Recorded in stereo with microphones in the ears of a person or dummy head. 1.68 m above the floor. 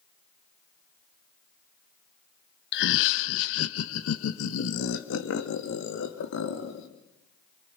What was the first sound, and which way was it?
Laughter, 55° left (ahead or behind).